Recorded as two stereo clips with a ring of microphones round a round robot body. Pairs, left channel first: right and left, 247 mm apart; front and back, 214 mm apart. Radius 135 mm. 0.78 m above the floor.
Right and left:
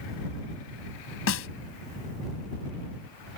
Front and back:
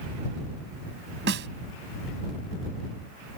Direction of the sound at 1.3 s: 130° right.